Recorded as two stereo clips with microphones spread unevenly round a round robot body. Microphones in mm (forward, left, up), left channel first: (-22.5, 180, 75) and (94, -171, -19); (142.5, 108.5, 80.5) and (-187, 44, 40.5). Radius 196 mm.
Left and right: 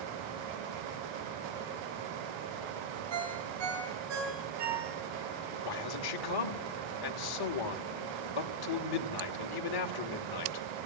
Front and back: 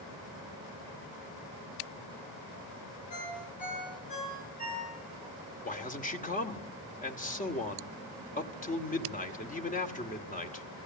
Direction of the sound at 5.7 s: 80° left.